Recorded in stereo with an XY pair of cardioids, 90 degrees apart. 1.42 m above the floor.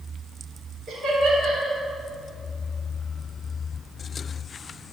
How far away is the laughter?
About 3 m.